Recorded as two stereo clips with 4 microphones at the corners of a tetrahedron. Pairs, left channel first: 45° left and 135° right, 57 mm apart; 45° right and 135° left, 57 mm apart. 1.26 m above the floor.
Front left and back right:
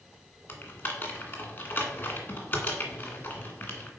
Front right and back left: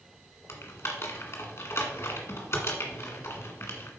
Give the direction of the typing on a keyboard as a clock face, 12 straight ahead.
12 o'clock.